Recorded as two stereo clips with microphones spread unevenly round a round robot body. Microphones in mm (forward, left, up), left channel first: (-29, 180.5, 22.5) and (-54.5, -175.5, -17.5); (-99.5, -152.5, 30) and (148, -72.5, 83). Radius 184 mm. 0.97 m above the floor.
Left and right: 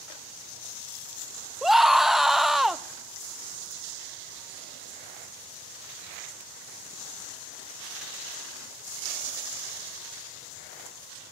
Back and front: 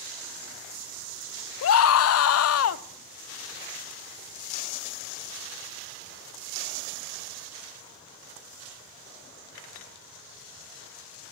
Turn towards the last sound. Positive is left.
turn(degrees=180)